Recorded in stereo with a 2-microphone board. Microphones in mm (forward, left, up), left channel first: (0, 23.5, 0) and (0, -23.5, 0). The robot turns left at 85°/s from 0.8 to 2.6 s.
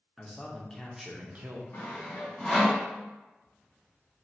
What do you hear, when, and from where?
0.2 s a man speaking: 10° left, 0.9 m; by 1.6 s 60° right, 0.9 m
1.7 s sawing: 75° left (ahead or behind), 1.9 m; by 2.8 s 5° left (ahead or behind), 1.9 m